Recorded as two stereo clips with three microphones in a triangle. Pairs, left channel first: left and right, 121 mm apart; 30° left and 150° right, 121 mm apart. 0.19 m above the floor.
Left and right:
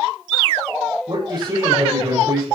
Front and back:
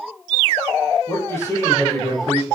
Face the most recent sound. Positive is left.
turn(degrees=-40)